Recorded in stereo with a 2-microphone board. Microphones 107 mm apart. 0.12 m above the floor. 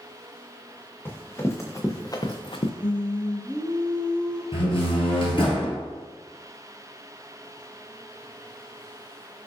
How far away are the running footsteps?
About 1.3 m.